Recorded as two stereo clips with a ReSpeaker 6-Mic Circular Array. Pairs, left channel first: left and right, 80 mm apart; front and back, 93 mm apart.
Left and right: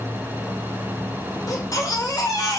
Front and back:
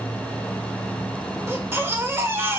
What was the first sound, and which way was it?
A baby crying, 120° left.